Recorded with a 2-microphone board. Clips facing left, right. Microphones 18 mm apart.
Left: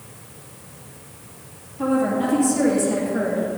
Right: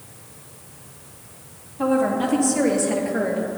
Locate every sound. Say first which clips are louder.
1.8 s a woman speaking: even; 25° right (ahead or behind), 4 m; by 3.5 s 20° right (ahead or behind), 2.5 m